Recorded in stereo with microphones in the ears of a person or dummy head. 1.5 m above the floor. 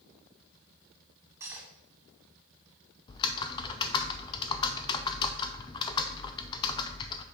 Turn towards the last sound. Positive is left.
turn(degrees=25)  # may be behind; listen again after turning